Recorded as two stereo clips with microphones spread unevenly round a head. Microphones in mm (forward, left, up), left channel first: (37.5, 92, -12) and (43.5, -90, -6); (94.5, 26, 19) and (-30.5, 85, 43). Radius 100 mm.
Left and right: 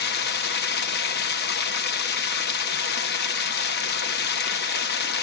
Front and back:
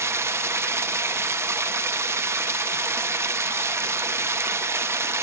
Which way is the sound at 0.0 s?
95° left.